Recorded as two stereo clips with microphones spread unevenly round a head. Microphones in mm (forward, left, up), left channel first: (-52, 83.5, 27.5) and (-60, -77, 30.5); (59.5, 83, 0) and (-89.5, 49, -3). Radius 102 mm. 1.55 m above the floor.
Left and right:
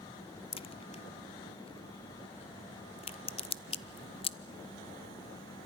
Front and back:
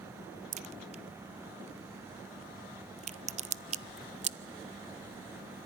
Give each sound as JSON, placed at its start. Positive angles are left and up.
{"t": 0.5, "sound": "a crack", "azimuth_deg": 145, "distance_m": 0.6}